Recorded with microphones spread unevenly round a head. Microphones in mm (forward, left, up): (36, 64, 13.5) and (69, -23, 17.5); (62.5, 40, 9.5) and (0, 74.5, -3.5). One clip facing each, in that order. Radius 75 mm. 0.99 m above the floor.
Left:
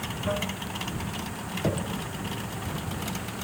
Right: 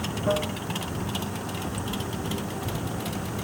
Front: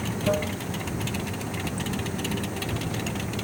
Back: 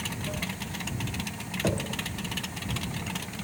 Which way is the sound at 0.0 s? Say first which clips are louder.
Right 4 dB, front 9 dB; 5° right.